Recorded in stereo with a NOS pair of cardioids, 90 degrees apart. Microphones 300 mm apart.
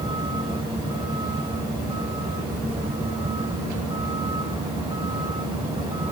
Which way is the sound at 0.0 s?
15° right.